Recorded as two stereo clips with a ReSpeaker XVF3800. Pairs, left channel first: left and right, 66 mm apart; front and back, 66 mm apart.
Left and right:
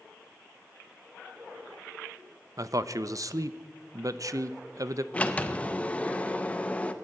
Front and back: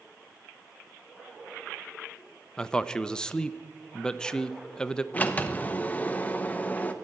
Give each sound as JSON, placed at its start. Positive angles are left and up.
{"t": 2.6, "sound": "a man speaking", "azimuth_deg": -75, "distance_m": 0.6}
{"t": 5.1, "sound": "a sliding door", "azimuth_deg": 40, "distance_m": 0.8}